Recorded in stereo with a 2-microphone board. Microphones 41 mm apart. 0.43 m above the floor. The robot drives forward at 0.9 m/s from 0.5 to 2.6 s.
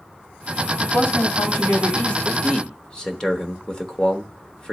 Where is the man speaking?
25° left (ahead or behind), 0.9 m; by 4.7 s 20° left (ahead or behind), 1.0 m.